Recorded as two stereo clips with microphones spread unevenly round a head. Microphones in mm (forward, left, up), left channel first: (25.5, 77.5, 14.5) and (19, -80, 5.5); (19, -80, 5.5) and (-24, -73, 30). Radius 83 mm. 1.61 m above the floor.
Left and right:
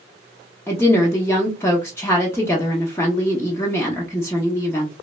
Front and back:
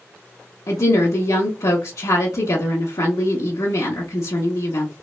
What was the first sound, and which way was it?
A woman speaking, 15° left.